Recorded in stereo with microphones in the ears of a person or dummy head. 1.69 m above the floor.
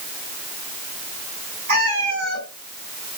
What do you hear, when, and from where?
1.7 s a cat meowing: 40° right (ahead or behind), 5 m